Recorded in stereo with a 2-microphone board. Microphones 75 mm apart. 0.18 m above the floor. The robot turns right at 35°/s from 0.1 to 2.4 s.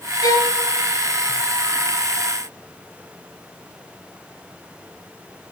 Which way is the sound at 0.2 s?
60° left (ahead or behind).